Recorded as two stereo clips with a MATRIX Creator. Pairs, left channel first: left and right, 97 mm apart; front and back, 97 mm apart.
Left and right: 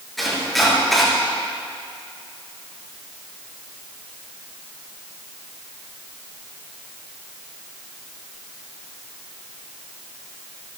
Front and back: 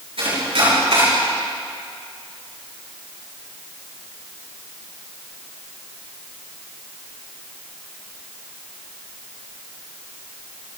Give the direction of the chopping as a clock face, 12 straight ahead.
6 o'clock.